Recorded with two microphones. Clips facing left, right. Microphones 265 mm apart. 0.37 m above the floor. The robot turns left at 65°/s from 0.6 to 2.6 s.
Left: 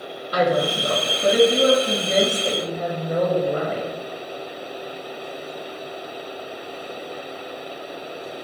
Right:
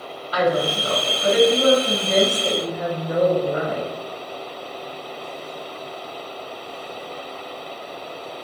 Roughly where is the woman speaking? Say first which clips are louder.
Even; behind left.